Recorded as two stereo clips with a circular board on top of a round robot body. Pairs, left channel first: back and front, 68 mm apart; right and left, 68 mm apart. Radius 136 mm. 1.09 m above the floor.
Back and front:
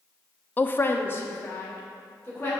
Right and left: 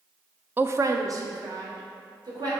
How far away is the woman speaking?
About 0.5 m.